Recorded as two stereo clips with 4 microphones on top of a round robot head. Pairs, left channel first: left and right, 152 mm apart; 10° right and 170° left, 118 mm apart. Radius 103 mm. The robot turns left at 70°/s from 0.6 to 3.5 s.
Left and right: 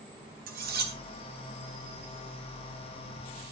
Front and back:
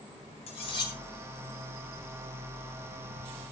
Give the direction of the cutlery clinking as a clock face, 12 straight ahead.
2 o'clock.